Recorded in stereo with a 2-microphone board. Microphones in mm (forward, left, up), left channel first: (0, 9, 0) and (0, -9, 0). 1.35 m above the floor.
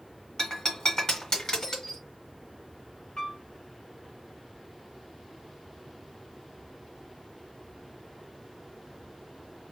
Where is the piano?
55° left (ahead or behind), 2 m.